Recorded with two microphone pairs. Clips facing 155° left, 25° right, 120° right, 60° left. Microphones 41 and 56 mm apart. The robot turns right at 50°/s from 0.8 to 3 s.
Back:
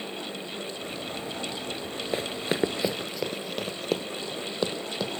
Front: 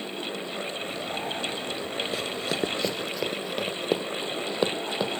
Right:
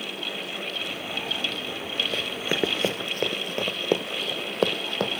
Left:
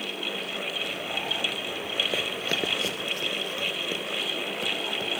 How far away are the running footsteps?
About 0.9 m.